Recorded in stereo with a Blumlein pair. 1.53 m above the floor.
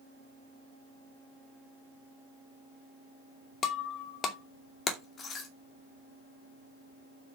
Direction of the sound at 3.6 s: 25° left.